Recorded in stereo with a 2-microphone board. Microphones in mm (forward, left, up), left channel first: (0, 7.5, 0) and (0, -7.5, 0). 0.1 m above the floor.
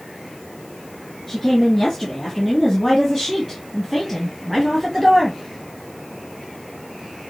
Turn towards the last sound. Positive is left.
turn(degrees=-15)  # may be behind; listen again after turning